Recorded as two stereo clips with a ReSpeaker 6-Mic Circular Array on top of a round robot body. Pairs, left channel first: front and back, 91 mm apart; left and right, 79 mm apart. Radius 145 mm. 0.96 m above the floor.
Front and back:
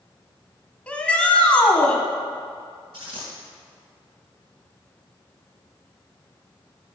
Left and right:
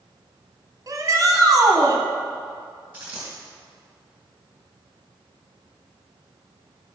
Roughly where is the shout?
Right.